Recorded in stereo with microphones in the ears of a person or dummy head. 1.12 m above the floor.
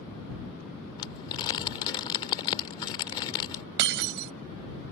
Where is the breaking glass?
60° right (ahead or behind).